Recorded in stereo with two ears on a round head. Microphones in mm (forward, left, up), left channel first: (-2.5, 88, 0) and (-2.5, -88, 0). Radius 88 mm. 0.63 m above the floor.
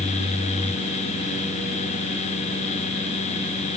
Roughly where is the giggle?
No giggle in this recording.